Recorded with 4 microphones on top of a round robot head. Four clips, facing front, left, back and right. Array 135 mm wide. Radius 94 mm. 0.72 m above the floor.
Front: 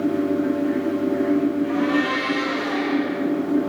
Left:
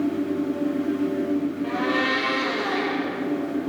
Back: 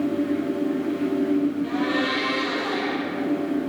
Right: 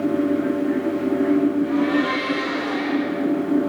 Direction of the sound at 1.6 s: 100° left.